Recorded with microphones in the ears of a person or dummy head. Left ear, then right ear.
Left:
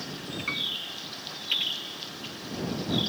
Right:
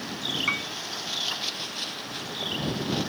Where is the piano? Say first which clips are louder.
Even; 35° right (ahead or behind).